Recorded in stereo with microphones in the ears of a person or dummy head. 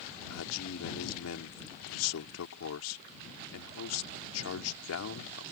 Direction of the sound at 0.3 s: 80° left.